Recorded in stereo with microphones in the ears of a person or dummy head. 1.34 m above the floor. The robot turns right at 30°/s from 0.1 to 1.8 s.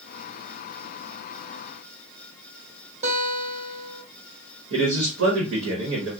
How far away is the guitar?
About 1.7 m.